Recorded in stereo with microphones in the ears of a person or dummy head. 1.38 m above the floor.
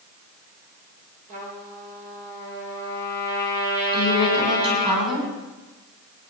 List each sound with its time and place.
1.3 s a trumpet: 40° right (ahead or behind), 5 m
3.9 s a woman speaking: 25° right (ahead or behind), 9.5 m